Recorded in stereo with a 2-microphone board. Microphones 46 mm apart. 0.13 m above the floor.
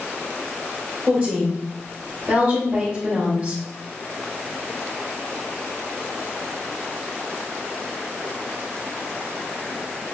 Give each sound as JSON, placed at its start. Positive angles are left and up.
{"t": 1.1, "sound": "a woman speaking", "side_deg": -35, "distance_m": 1.8}